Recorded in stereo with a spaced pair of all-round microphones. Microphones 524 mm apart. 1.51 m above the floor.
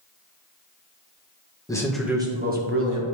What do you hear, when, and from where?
1.7 s a man speaking: 5° left (ahead or behind), 1.5 m; by 3.0 s 35° right (ahead or behind), 1.4 m